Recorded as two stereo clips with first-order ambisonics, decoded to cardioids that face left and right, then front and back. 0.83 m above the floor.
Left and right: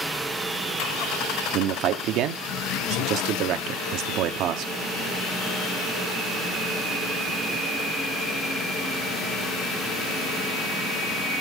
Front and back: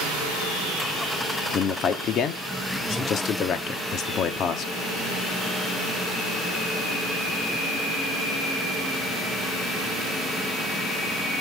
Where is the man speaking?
55° right, 1.2 m.